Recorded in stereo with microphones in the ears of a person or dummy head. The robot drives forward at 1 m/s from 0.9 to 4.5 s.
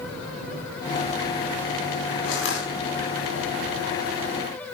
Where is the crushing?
60° left (ahead or behind), 5.5 m; by 2.7 s 65° left (ahead or behind), 5 m.